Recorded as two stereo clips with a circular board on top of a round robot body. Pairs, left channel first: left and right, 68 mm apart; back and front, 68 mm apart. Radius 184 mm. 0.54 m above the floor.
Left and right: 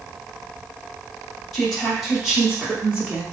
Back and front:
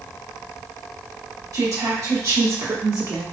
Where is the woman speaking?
5° left, 2.0 m; by 3.2 s 25° right, 2 m.